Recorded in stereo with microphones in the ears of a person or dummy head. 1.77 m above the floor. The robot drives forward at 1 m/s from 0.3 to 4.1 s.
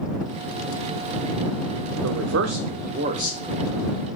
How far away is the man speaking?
About 1.3 m.